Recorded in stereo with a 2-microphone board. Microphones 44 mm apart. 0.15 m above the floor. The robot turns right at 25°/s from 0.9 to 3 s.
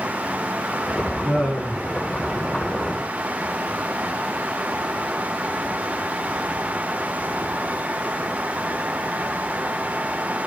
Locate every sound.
1.2 s laughter: 15° left (ahead or behind), 1.3 m; by 1.9 s 10° left (ahead or behind), 1.3 m